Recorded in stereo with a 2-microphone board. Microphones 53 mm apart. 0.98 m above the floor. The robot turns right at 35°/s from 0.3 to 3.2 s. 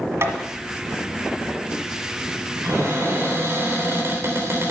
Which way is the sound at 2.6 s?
75° right (ahead or behind).